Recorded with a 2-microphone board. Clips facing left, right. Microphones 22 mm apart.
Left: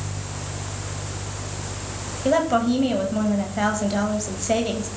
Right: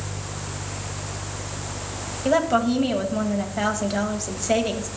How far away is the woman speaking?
About 1.3 m.